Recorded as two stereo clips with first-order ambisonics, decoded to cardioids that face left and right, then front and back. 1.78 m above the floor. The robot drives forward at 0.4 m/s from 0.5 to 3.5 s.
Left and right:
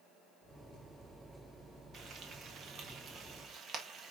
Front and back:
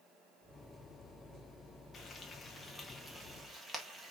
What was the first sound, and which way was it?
Frying, 50° right.